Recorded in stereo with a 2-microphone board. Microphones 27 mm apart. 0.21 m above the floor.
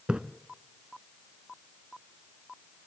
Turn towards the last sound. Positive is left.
turn(degrees=-40)  # may be behind; listen again after turning